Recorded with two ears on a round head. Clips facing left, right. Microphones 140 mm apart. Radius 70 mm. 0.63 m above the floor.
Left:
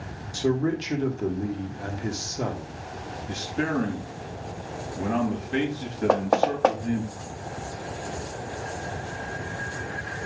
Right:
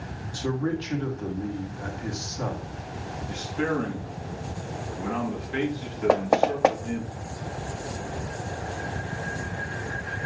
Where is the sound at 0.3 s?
25° left (ahead or behind), 1.7 m.